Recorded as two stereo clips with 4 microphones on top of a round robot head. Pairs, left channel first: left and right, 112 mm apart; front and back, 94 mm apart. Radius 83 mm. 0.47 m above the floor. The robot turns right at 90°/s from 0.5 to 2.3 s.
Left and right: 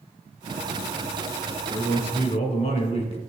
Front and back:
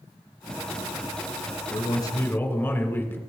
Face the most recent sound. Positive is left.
turn(degrees=65)